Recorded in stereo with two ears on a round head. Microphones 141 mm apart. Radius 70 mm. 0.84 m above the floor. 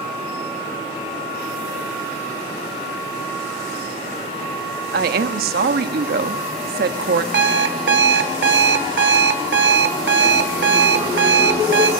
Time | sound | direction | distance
4.9 | a woman speaking | 65° right (ahead or behind) | 1.1 m
7.3 | an alarm clock | 75° right (ahead or behind) | 1.3 m